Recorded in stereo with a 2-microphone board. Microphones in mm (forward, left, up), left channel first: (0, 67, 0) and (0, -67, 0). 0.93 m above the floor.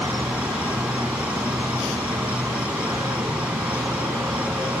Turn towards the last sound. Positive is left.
turn(degrees=-10)  # may be behind; listen again after turning